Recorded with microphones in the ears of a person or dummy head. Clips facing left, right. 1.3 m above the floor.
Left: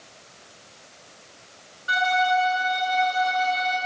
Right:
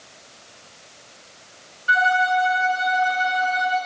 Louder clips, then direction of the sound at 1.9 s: Right 2 dB; 40° right (ahead or behind).